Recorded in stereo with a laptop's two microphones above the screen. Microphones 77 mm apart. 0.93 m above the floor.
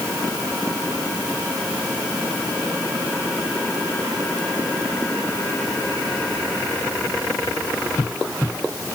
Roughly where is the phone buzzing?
No phone buzzing in this recording.